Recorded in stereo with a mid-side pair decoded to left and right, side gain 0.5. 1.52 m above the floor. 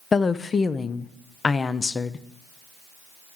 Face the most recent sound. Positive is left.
turn(degrees=35)